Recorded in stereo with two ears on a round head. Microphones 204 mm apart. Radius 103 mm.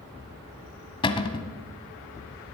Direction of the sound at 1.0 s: 25° left (ahead or behind).